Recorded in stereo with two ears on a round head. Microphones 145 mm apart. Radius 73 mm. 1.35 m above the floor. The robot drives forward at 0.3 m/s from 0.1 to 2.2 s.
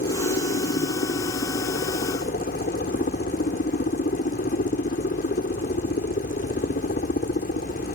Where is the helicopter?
50° left (ahead or behind).